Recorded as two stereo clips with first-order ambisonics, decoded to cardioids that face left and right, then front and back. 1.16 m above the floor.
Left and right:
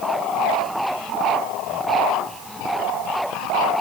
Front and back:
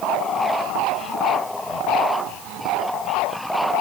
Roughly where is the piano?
I don't hear a piano.